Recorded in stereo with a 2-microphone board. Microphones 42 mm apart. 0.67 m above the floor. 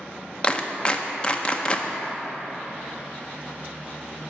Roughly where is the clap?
Left.